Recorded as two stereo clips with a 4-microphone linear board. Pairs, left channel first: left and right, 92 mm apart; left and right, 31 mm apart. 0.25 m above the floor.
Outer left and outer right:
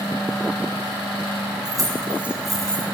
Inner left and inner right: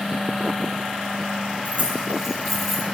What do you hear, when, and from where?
1.6 s keys jangling: 45° right (ahead or behind), 1.4 m; by 2.8 s 10° left (ahead or behind), 1.9 m